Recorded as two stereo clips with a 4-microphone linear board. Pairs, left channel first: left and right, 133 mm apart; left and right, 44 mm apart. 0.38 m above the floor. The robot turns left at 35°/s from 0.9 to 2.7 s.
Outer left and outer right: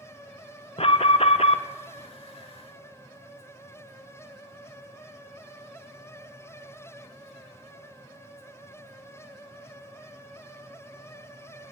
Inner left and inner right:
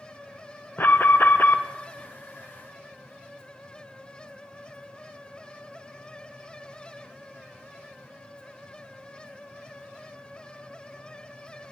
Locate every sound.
0.8 s an alarm: 50° left (ahead or behind), 0.8 m